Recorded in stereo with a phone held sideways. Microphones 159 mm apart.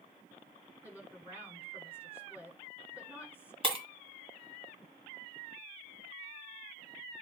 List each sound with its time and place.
0.8 s a woman speaking: 10° right (ahead or behind), 7 m
3.6 s breaking glass: 35° right (ahead or behind), 1.9 m